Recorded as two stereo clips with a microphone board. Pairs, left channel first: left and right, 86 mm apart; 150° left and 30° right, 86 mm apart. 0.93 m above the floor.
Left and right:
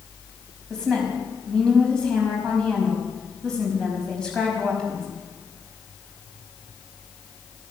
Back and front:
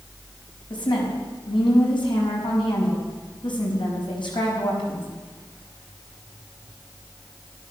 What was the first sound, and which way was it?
A woman speaking, 170° left.